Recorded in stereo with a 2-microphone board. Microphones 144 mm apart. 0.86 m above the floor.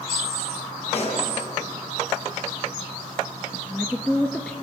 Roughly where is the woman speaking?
Centre.